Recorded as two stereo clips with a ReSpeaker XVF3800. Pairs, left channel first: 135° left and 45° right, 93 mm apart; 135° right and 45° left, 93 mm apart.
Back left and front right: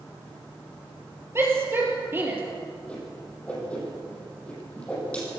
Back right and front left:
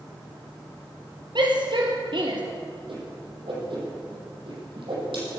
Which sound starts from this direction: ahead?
A shout, at 1.4 s.